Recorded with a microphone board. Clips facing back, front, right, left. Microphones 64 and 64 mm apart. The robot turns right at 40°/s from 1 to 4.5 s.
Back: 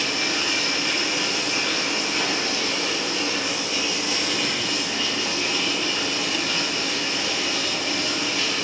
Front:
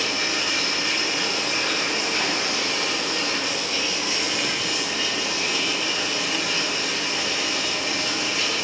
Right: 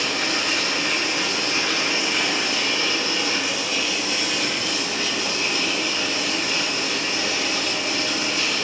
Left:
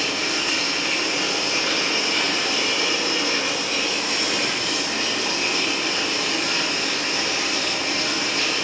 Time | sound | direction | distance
0.0 | running water | 65° right | 2.5 m